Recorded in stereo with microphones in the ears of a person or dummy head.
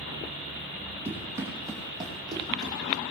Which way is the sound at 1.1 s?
10° right (ahead or behind).